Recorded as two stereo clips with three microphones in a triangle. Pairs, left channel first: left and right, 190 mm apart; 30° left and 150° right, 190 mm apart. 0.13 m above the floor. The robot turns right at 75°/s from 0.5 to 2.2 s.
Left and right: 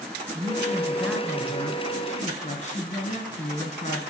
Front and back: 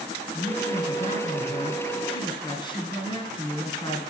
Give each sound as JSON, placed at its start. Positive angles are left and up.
{"t": 0.3, "sound": "a man speaking", "azimuth_deg": -45, "distance_m": 2.0}